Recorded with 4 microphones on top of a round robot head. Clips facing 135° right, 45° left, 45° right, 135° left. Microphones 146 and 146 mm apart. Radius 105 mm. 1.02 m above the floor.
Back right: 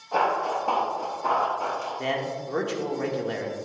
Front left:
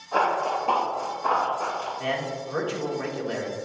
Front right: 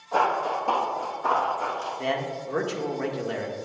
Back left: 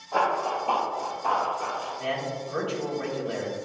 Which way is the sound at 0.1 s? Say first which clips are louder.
Even, front right 1 dB; 80° right.